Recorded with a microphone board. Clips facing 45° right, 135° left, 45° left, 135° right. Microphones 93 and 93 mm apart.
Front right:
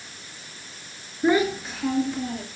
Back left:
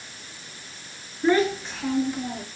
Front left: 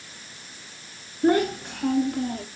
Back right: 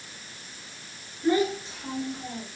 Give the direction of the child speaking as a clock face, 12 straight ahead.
11 o'clock.